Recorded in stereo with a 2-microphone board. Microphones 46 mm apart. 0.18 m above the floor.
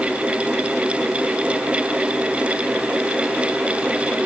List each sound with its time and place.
Only background noise.